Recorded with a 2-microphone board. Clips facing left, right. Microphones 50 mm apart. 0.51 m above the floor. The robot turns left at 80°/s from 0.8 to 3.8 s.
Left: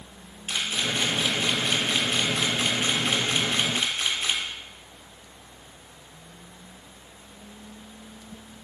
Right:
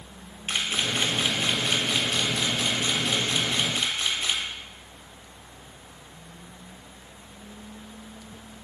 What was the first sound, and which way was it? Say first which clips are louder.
A camera shutter: right 1 dB; 40° right (ahead or behind).